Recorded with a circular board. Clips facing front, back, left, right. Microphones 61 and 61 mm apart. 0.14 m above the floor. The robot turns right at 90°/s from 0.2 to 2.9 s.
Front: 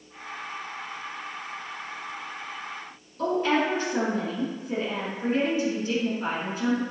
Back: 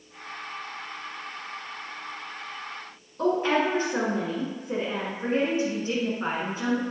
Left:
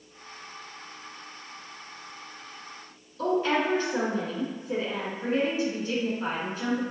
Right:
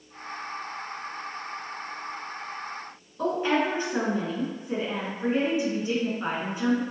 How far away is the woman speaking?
About 1.3 m.